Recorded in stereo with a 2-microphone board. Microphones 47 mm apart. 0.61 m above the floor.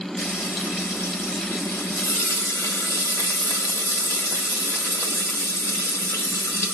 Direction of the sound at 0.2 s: 75° left (ahead or behind).